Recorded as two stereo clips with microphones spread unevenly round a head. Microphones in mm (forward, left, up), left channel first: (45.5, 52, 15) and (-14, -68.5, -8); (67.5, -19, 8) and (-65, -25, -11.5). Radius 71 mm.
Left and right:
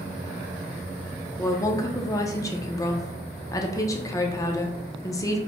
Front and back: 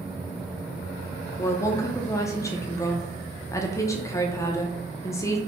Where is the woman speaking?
40° left, 0.6 m.